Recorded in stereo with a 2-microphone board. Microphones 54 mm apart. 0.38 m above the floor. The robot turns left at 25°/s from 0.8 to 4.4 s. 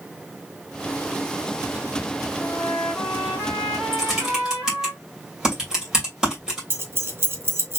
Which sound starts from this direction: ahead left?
A trumpet, at 2.4 s.